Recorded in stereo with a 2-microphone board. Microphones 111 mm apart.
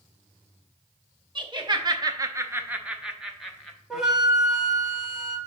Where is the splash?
I don't hear a splash.